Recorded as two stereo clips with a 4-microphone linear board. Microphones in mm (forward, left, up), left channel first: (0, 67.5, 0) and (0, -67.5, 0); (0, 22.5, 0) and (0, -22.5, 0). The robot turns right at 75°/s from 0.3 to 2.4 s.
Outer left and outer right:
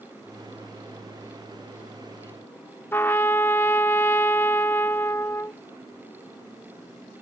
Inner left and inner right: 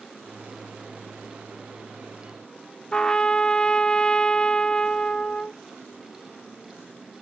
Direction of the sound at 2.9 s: 15° left (ahead or behind).